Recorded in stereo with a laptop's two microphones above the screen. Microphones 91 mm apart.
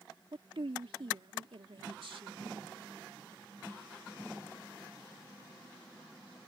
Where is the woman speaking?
75° right (ahead or behind).